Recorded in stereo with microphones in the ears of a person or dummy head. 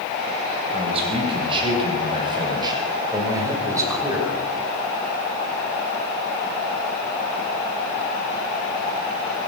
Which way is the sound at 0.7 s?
35° right (ahead or behind).